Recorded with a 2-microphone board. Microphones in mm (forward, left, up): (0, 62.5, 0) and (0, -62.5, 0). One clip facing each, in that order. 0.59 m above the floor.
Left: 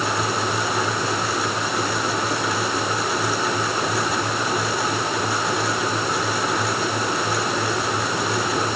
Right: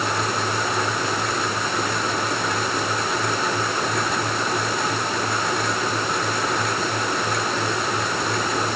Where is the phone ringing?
No phone ringing in this recording.